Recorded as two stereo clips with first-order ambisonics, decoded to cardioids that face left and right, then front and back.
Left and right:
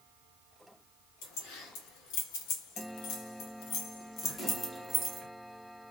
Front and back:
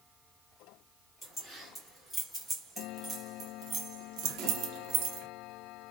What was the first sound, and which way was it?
Keys jangling, 85° left.